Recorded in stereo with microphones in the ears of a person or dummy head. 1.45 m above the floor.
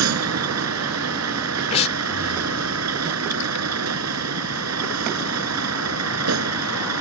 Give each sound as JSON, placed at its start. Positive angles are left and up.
{"t": 0.0, "sound": "a vehicle", "side_deg": -80}
{"t": 1.7, "sound": "breathing", "side_deg": 35}